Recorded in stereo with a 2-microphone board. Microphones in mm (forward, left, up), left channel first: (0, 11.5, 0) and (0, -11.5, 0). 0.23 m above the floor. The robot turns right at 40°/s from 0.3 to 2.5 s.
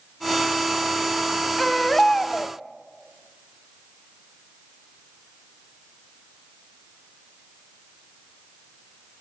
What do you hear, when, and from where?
1.6 s a baby crying: 15° left, 0.8 m; by 2.5 s 50° left, 0.8 m